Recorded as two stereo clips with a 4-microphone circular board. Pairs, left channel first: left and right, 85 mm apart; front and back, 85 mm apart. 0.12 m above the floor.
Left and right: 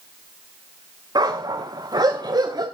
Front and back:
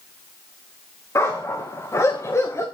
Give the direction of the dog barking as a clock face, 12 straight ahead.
2 o'clock.